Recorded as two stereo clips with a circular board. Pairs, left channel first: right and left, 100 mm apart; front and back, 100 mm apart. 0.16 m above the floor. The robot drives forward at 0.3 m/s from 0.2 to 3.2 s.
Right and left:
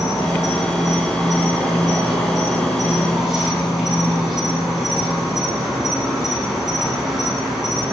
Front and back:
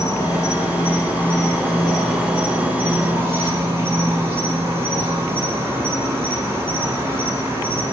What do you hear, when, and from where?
0.0 s an insect: 5° left, 0.9 m; by 7.9 s 170° left, 0.9 m